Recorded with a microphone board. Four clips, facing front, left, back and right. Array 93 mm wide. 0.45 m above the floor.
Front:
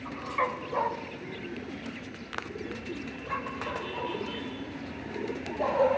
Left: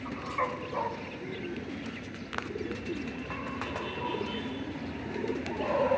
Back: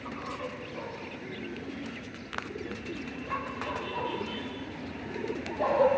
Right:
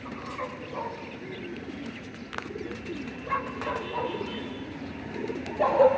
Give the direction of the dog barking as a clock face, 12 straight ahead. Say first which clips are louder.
Left 5 dB, front 10 dB; 11 o'clock.